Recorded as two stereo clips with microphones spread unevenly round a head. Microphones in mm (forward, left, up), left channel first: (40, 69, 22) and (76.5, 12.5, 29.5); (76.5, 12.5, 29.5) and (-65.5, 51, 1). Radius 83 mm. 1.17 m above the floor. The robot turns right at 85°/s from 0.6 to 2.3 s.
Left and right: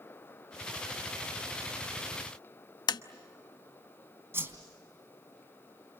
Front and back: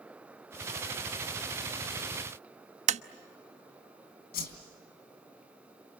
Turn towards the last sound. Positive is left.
turn(degrees=-5)